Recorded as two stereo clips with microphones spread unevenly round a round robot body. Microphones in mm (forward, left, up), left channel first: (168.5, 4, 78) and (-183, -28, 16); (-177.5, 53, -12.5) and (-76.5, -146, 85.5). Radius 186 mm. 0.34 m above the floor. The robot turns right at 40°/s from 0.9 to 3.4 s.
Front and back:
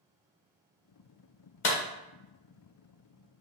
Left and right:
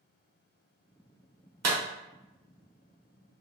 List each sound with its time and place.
1.6 s a clap: 50° right, 1.0 m; by 1.8 s 45° right, 1.0 m